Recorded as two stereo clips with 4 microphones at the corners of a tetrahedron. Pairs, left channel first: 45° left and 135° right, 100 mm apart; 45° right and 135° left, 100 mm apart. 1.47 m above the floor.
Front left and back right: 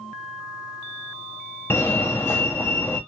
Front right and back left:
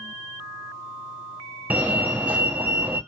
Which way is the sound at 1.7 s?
80° left.